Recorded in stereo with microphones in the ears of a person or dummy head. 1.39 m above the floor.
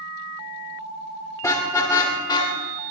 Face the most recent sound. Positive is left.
turn(degrees=25)  # may be behind; listen again after turning